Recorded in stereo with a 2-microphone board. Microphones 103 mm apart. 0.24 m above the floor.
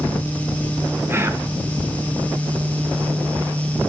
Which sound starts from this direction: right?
Whispering, at 1.1 s.